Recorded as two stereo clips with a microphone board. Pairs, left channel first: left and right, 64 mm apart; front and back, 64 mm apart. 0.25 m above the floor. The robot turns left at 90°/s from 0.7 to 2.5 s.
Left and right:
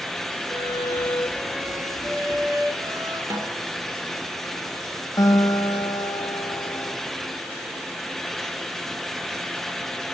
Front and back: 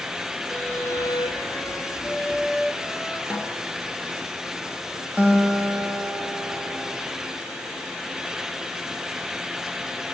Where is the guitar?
115° left, 4.5 m.